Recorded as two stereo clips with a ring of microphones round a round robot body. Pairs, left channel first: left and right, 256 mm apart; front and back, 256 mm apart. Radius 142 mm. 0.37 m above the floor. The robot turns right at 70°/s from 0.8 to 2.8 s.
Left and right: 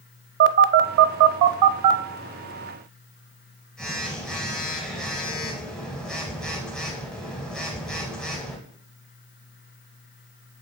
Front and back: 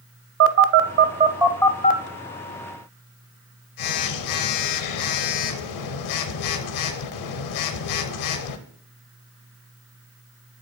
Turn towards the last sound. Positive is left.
turn(degrees=0)